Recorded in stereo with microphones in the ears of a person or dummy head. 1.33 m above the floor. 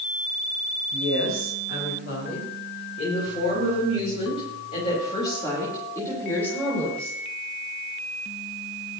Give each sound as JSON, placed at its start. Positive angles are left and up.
{"t": 0.9, "sound": "a woman speaking", "side_deg": 70, "distance_m": 6.0}